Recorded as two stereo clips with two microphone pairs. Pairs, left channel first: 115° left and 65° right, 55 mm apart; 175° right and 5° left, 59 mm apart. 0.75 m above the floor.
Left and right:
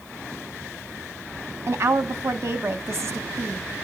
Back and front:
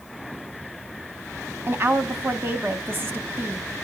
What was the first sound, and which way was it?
A woman speaking, 40° right.